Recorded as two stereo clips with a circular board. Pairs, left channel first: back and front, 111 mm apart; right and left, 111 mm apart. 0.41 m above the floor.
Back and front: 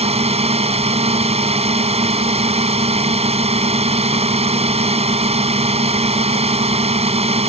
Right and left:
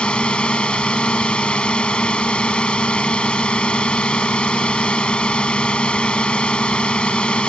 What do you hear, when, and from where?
0.0 s a drone: 10° right